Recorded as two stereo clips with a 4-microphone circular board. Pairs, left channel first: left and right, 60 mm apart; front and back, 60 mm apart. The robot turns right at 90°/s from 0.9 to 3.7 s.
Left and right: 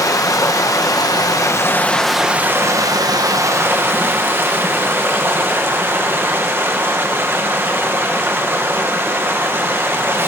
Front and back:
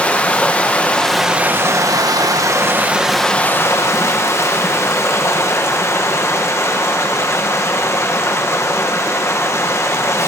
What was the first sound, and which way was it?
Running water, 70° left.